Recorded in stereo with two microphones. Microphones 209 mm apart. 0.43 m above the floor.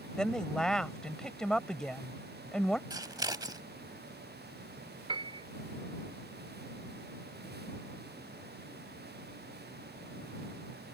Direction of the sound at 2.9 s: 20° right (ahead or behind).